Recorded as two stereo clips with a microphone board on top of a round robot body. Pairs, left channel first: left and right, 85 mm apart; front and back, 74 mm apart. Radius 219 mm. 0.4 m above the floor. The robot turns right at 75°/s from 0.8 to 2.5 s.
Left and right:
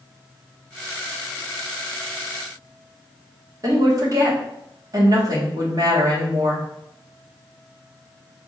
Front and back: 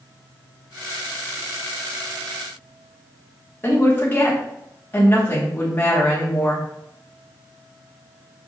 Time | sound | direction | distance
3.6 | a woman speaking | 60° right | 1.7 m